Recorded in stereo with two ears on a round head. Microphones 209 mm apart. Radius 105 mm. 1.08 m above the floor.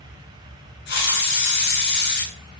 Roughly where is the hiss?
Left.